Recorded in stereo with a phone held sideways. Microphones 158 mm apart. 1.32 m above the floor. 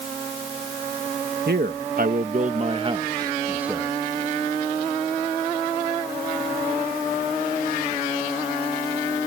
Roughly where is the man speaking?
Right.